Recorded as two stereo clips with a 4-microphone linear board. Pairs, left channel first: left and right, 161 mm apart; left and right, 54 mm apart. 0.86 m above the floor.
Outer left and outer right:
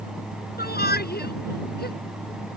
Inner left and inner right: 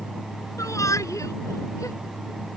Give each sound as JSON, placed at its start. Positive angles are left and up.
{"t": 0.6, "sound": "a shout", "side_deg": 80}